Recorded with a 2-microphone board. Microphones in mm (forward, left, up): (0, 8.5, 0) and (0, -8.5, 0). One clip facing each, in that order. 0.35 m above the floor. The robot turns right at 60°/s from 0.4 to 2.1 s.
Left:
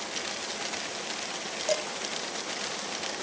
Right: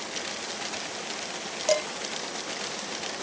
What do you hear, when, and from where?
1.7 s dishes clattering: 15° right (ahead or behind), 0.7 m; by 1.9 s 20° right (ahead or behind), 0.7 m